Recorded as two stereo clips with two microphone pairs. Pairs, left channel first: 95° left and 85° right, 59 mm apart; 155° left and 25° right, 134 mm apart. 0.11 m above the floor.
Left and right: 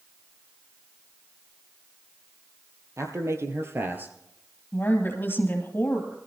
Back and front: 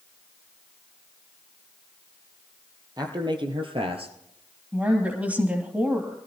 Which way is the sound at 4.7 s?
55° left.